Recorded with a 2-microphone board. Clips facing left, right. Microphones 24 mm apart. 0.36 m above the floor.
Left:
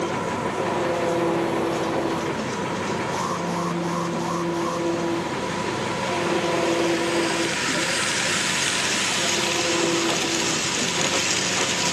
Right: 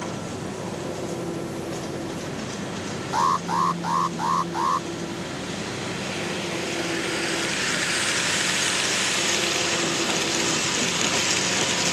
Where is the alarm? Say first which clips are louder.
Right 4 dB; 40° right (ahead or behind).